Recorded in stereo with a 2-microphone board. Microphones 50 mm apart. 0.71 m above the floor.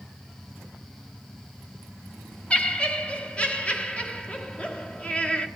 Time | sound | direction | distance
2.5 | laughter | 25° left (ahead or behind) | 1.6 m